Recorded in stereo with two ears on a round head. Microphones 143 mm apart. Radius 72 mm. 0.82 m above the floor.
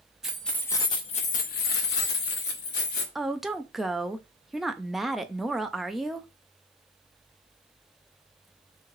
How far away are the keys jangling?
About 0.8 m.